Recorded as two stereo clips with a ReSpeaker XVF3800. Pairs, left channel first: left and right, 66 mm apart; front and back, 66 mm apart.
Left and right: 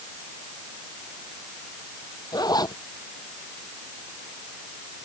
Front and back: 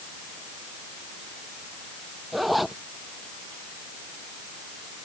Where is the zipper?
90° left.